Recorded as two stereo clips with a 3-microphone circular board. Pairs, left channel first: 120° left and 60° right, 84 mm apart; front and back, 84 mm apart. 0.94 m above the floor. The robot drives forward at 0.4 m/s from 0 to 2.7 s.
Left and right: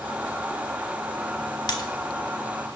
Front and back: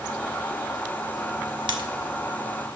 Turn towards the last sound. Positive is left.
turn(degrees=165)